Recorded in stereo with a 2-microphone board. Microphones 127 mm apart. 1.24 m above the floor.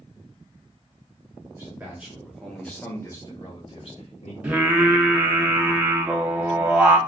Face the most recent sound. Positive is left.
turn(degrees=-10)  # may be behind; listen again after turning